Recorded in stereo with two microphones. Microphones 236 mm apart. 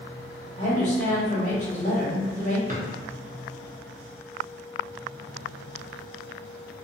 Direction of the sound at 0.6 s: 30° left (ahead or behind).